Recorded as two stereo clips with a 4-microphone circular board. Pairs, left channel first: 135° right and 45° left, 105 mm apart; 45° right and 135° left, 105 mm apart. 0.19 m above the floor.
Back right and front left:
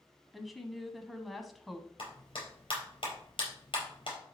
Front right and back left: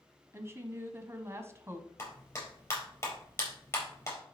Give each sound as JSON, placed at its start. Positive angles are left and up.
{"t": 0.3, "sound": "a woman speaking", "azimuth_deg": 135, "distance_m": 1.1}
{"t": 2.0, "sound": "a clap", "azimuth_deg": -105, "distance_m": 4.0}